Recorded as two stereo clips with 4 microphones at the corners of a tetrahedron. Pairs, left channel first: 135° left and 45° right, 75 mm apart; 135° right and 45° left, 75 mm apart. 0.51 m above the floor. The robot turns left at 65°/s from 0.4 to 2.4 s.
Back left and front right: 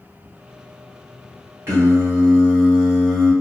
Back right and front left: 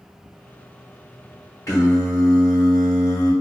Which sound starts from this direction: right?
Singing, at 1.7 s.